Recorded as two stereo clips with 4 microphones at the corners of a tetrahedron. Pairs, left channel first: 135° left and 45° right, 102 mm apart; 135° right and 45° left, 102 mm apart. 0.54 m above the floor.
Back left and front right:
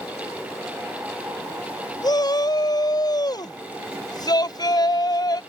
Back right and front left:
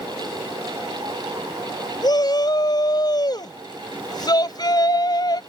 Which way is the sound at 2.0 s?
Straight behind.